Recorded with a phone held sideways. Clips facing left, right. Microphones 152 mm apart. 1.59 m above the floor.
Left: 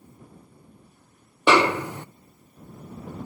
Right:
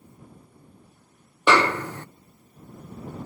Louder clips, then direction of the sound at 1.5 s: Left 1 dB; 15° left (ahead or behind).